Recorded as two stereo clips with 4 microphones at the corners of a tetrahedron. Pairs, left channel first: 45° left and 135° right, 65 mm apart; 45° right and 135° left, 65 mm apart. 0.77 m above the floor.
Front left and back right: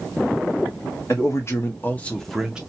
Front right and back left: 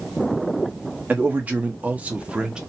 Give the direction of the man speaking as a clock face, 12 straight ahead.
9 o'clock.